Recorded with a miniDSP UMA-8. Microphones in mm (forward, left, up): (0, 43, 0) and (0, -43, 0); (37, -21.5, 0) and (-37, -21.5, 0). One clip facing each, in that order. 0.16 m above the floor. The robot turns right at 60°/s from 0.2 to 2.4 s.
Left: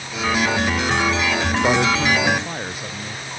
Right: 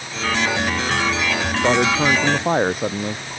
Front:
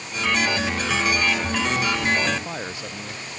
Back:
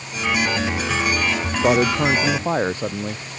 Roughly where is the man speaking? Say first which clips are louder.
Right 2 dB, back 10 dB; behind.